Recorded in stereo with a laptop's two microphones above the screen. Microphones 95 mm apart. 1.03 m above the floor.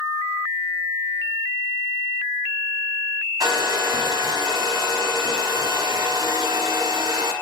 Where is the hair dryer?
40° right (ahead or behind), 1.2 m.